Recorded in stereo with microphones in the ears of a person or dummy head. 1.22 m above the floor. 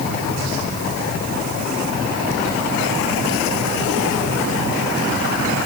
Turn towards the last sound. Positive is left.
No sound to turn to.